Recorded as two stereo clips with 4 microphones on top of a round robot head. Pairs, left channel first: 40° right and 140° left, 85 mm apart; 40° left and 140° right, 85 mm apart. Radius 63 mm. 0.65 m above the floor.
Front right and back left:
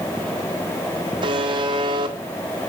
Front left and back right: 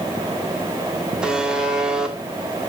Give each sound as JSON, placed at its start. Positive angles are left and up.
{"t": 1.2, "sound": "a buzzer", "azimuth_deg": 135, "distance_m": 1.8}